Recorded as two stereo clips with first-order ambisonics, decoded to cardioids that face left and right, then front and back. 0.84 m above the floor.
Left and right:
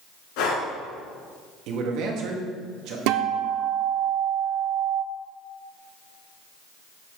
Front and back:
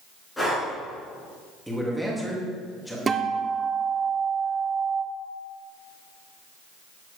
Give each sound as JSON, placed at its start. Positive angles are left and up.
{"t": 0.4, "sound": "breathing", "azimuth_deg": 85, "distance_m": 3.0}
{"t": 1.7, "sound": "a man speaking", "azimuth_deg": -90, "distance_m": 1.5}
{"t": 3.1, "sound": "a guitar", "azimuth_deg": -110, "distance_m": 0.7}